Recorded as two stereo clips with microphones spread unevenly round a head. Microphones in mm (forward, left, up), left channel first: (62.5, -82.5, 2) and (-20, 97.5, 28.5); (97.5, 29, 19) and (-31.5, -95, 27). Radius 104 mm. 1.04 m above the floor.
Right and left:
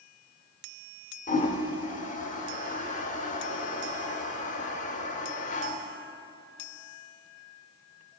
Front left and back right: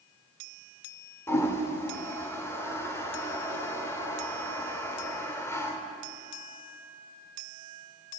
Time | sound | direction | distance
1.3 | a toilet flushing | 30° right | 0.8 m